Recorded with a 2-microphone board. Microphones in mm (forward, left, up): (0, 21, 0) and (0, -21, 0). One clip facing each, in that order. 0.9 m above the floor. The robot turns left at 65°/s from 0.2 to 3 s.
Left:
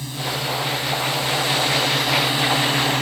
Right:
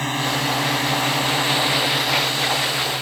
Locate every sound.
0.0 s a drone: 60° right; by 3.0 s 120° left